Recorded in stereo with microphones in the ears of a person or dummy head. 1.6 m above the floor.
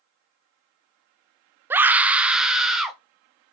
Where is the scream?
15° right (ahead or behind), 0.6 m; by 3.0 s 5° right (ahead or behind), 1.9 m.